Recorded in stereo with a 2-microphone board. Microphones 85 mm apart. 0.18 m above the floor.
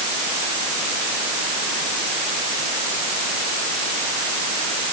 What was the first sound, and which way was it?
Only background noise.